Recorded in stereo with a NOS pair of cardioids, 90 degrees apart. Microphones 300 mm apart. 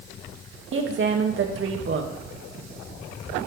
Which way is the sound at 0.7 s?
40° right.